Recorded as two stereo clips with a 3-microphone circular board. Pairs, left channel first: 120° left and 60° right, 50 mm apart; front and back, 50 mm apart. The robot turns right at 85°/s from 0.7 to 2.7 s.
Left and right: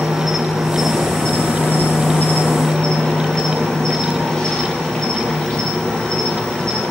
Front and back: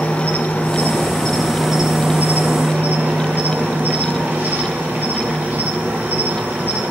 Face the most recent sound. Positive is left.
turn(degrees=-175)